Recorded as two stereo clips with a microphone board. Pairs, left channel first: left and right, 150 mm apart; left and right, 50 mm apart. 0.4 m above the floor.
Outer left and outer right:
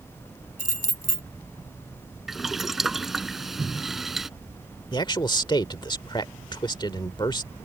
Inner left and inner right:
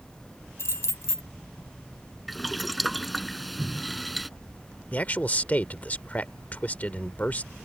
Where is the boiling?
Centre (ahead or behind).